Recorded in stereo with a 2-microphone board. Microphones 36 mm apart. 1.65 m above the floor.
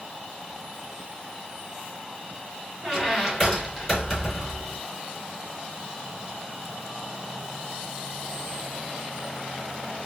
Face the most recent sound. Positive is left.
turn(degrees=5)  # may be behind; listen again after turning